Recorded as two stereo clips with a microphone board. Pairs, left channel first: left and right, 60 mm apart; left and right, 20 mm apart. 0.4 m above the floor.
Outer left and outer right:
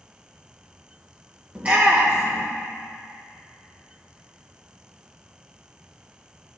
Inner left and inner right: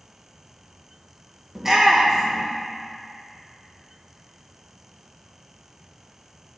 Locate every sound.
1.6 s a shout: 25° right (ahead or behind), 1.0 m